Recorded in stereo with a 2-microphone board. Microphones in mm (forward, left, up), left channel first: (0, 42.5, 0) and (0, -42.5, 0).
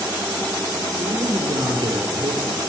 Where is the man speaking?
65° right (ahead or behind), 5 m.